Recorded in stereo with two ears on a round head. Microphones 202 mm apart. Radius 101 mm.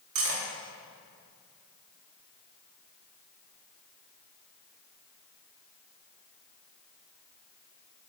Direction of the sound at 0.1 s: 65° right (ahead or behind).